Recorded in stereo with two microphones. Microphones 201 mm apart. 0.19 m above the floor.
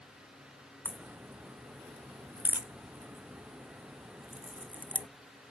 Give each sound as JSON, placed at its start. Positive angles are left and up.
{"t": 0.8, "sound": "a crack", "side_deg": -10}